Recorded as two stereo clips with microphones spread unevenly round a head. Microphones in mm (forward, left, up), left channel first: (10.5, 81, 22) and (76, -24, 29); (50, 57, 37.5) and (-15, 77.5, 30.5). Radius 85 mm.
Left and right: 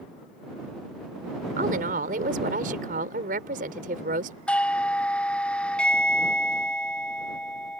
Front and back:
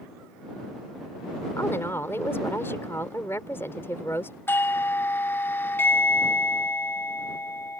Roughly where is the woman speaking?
Right.